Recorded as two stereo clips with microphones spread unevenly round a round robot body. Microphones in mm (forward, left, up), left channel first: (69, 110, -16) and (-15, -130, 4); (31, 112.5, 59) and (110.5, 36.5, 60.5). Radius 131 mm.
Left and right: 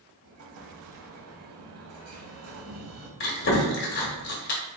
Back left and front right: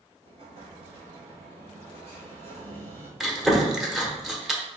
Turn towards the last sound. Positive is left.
turn(degrees=45)